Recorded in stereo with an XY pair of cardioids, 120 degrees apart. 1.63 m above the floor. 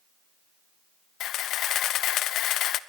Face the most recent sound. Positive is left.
turn(degrees=70)